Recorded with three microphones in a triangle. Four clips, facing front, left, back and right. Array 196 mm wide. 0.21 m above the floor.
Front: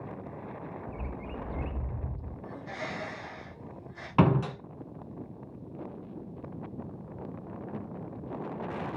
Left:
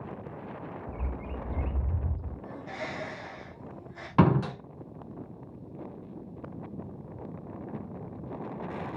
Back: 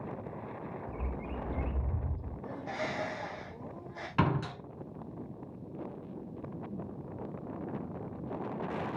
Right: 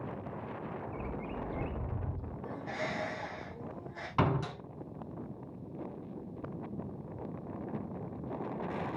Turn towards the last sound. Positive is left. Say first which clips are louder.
# left 7 dB, front 6 dB
turn(degrees=65)